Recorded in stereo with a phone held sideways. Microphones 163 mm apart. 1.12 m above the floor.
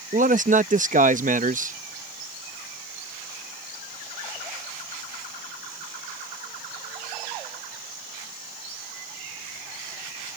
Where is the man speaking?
50° right (ahead or behind).